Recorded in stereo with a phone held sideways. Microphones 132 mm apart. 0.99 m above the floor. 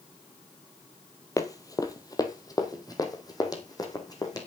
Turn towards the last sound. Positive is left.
turn(degrees=30)  # may be behind; listen again after turning